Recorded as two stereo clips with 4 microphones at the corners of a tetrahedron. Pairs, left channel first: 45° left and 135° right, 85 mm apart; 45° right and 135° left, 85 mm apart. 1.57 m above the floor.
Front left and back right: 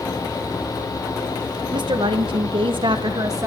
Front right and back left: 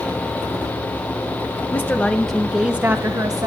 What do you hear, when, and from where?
1.7 s a woman speaking: 110° right, 1.9 m; by 3.5 s 170° left, 1.5 m